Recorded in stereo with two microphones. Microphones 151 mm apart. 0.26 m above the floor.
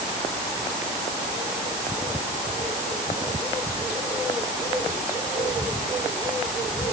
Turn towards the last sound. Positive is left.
No sound to turn to.